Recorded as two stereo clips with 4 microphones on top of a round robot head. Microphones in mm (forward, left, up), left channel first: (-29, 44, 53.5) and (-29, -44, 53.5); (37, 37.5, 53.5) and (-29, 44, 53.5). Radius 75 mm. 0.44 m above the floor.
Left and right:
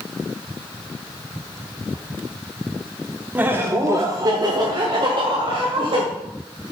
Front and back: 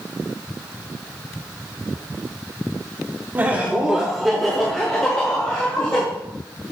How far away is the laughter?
About 1.1 m.